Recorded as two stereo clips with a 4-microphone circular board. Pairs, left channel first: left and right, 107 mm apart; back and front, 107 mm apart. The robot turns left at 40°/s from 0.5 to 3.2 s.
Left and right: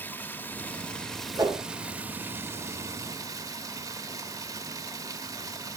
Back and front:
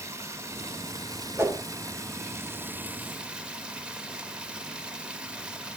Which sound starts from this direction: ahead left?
Running water, at 0.0 s.